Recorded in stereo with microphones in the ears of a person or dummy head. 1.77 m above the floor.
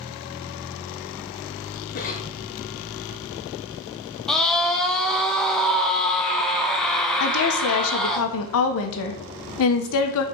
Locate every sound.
1.9 s a cough: 40° left (ahead or behind), 1.7 m
4.3 s a scream: centre (ahead or behind), 1.4 m
7.2 s a woman speaking: 75° left (ahead or behind), 1.7 m